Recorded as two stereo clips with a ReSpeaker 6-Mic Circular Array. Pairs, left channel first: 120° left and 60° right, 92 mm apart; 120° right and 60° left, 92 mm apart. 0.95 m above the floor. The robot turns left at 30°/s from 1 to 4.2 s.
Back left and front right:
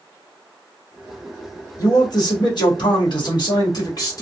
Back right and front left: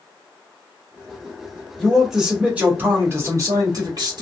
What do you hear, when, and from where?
1.8 s a man speaking: 155° left, 1.2 m; by 4.2 s 80° left, 1.2 m